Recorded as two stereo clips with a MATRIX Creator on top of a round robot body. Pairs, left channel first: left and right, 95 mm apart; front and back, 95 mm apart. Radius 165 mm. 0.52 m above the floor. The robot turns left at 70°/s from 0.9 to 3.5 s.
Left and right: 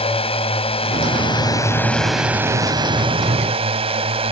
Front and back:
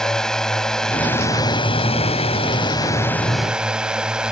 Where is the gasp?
I don't hear a gasp.